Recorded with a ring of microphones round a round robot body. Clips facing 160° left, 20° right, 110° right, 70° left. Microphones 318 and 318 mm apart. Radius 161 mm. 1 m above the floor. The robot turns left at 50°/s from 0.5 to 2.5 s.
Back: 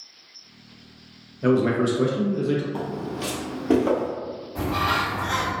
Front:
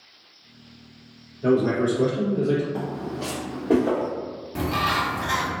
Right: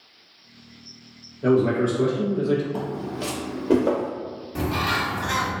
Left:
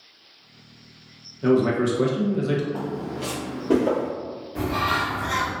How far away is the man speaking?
About 0.9 m.